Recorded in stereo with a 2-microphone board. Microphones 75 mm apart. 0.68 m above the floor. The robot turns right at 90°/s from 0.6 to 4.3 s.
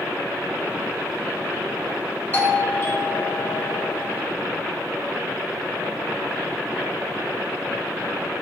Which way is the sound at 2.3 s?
25° left (ahead or behind).